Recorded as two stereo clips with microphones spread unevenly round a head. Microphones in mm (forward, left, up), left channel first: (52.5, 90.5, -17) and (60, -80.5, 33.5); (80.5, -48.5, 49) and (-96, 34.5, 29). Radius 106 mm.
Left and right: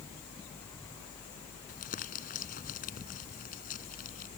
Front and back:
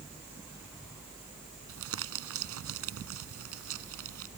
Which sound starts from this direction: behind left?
Crumpling, at 1.7 s.